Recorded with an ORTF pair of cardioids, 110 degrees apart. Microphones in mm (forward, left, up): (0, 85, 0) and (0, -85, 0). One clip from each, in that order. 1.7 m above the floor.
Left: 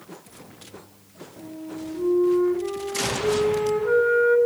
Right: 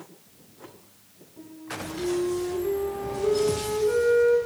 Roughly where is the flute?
Ahead left.